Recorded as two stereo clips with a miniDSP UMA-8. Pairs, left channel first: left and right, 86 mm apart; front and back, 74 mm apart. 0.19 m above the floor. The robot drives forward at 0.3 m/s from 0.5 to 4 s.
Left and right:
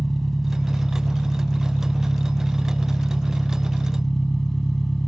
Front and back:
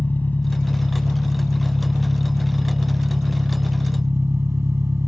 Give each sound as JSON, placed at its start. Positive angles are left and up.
{"t": 0.0, "sound": "an engine running", "azimuth_deg": 15, "distance_m": 1.0}